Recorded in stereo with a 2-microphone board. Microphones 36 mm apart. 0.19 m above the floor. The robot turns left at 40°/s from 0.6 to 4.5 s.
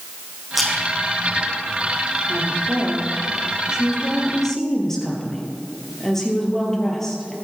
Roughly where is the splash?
Centre.